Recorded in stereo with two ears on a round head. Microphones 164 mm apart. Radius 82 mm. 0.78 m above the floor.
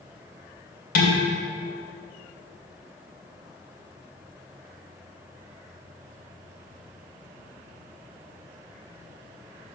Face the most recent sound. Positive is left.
turn(degrees=55)  # may be behind; listen again after turning